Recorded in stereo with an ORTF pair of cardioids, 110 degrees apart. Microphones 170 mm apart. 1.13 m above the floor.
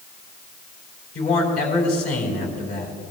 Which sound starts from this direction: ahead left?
A man speaking, at 1.1 s.